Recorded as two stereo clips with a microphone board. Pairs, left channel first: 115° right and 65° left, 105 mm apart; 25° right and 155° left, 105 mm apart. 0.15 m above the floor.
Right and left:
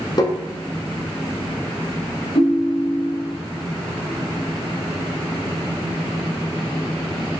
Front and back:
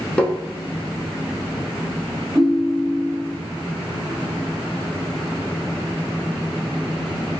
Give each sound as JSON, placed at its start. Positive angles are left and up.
{"t": 0.2, "sound": "tapping", "azimuth_deg": -95, "distance_m": 0.7}
{"t": 2.4, "sound": "a ringtone", "azimuth_deg": -125, "distance_m": 1.6}